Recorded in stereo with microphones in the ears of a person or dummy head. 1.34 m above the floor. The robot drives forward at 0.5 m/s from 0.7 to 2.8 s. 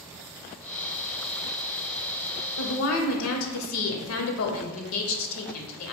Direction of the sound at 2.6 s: 80° left.